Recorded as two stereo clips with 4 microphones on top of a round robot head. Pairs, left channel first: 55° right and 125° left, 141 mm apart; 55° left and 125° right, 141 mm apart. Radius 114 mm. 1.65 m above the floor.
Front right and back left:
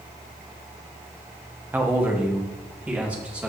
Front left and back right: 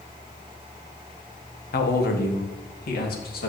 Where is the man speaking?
50° left, 1.3 m; by 3.5 s 45° left, 2.5 m.